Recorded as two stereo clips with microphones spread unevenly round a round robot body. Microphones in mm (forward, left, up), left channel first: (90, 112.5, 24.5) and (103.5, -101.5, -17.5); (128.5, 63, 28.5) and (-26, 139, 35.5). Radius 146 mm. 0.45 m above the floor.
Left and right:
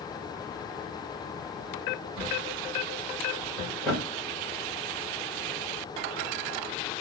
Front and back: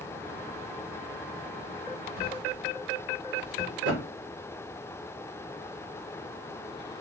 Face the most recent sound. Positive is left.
turn(degrees=-170)